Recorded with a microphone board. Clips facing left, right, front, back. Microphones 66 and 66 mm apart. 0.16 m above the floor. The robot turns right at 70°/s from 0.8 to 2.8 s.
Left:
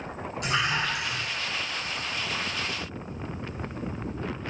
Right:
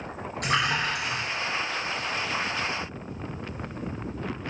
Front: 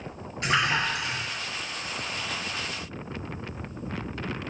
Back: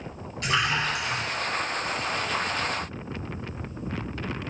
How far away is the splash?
About 3 m.